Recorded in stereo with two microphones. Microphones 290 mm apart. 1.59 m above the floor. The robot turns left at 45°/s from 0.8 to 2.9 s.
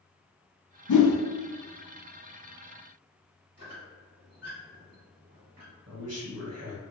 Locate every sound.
0.9 s a whoosh: 80° left, 0.5 m; by 1.2 s 75° left (ahead or behind), 0.5 m
3.6 s a squeak: 55° right (ahead or behind), 1.8 m
5.9 s a man speaking: 55° right (ahead or behind), 1.1 m